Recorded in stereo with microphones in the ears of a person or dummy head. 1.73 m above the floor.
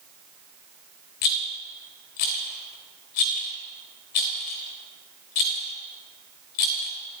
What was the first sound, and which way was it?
A rattle, 40° left (ahead or behind).